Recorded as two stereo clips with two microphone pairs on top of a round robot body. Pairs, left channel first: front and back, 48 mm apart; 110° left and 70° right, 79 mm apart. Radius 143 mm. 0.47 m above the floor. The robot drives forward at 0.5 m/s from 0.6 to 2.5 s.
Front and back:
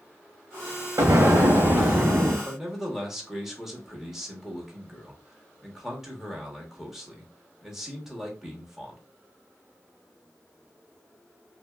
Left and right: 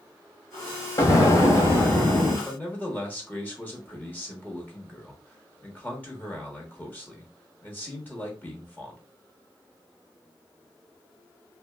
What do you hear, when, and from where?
1.0 s an explosion: 160° left, 0.9 m; by 2.4 s 170° left, 1.5 m
2.5 s a man speaking: 145° left, 1.4 m